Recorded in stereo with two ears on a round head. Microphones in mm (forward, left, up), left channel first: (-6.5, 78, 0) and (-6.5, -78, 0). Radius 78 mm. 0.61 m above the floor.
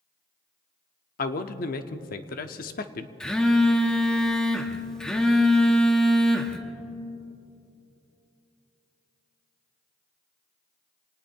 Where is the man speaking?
55° left (ahead or behind), 0.9 m.